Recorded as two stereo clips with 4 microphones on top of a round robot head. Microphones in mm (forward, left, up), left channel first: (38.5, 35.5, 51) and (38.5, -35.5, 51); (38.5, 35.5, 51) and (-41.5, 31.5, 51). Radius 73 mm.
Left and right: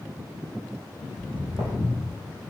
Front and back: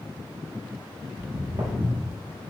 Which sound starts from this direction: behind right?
Footsteps, at 1.1 s.